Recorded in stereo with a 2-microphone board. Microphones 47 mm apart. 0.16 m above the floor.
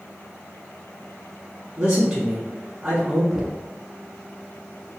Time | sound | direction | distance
1.8 | a man speaking | 15° right (ahead or behind) | 1.0 m
3.3 | knocking | 10° right (ahead or behind) | 0.8 m